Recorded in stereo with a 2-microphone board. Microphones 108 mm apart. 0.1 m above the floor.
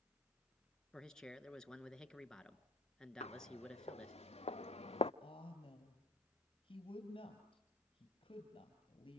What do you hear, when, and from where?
0.9 s a man speaking: 5° left (ahead or behind), 1.2 m
3.2 s footsteps: 85° left, 2 m; by 5.1 s 60° left (ahead or behind), 0.5 m
5.2 s a woman speaking: 55° left (ahead or behind), 2.5 m